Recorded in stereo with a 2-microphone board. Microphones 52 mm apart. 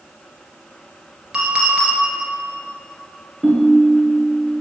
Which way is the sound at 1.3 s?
15° right (ahead or behind).